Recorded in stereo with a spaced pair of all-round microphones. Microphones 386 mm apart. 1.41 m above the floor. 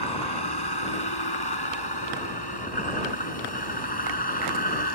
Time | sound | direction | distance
0.0 | a vehicle | 85° left | ?